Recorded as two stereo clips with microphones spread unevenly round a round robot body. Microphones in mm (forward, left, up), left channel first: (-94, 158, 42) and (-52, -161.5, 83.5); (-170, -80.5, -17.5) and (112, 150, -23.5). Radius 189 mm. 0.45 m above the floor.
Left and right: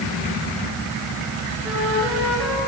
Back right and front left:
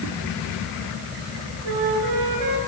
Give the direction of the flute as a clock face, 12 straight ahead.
12 o'clock.